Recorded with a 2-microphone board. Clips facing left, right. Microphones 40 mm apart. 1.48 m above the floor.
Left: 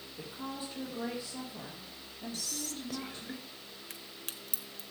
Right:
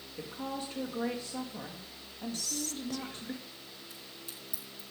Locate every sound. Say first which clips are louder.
0.2 s a woman speaking: right 3 dB; 55° right (ahead or behind), 2 m
2.3 s whispering: right 2 dB; 5° right (ahead or behind), 0.6 m
3.9 s a crack: left 1 dB; 75° left (ahead or behind), 1.0 m